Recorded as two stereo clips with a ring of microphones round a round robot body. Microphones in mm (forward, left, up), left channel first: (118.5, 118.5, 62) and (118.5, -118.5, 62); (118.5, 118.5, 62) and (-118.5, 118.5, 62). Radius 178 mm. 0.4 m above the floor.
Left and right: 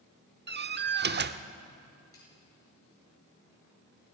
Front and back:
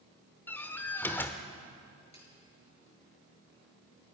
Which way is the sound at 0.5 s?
80° right.